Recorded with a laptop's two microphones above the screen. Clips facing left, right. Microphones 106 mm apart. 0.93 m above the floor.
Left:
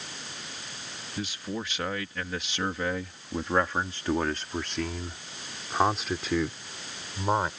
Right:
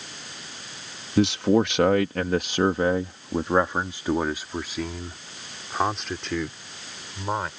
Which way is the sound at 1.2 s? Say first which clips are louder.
Right 15 dB; 75° right (ahead or behind).